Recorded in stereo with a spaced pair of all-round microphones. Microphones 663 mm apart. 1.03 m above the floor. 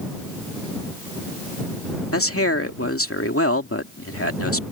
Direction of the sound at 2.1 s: 20° left (ahead or behind).